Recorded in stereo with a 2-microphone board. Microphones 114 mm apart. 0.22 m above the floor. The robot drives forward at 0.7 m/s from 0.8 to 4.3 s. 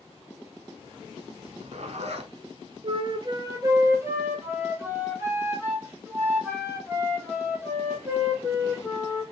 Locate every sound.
1.4 s a zipper: 55° right (ahead or behind), 0.7 m
2.8 s a flute: 55° right (ahead or behind), 0.6 m; by 9.2 s 20° right (ahead or behind), 1.4 m